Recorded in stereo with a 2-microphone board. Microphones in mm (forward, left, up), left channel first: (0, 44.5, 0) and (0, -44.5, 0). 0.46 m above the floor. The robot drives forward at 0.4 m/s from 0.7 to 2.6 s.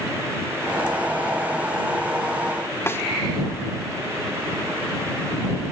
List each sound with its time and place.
2.9 s a snare drum: 25° left (ahead or behind), 1.1 m